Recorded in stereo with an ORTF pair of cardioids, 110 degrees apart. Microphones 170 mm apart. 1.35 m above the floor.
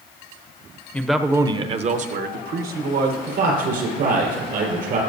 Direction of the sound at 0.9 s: 10° left.